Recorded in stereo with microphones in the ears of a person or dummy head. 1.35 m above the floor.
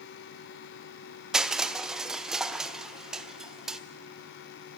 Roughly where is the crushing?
Centre.